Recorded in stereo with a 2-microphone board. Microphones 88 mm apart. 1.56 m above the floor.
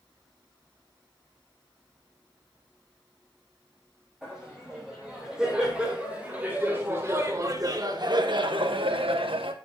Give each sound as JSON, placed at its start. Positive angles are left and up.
{"t": 4.2, "sound": "laughter", "side_deg": -5, "distance_m": 4.0}